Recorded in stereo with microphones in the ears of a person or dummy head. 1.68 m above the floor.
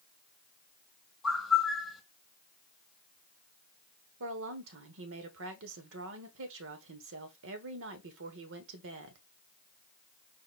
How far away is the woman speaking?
About 1.0 m.